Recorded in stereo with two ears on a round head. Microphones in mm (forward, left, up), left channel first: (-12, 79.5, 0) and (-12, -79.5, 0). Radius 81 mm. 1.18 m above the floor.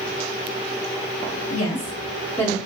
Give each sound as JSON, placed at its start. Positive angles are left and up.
{"t": 1.5, "sound": "a woman speaking", "side_deg": 45, "distance_m": 1.3}